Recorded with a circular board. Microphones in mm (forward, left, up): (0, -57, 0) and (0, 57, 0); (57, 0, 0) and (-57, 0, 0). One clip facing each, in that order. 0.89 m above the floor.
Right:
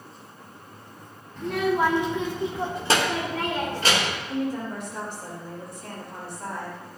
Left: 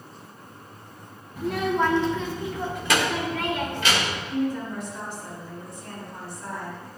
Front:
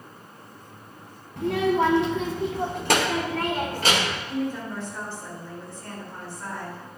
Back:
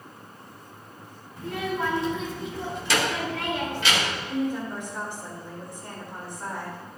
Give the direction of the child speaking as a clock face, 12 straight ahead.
12 o'clock.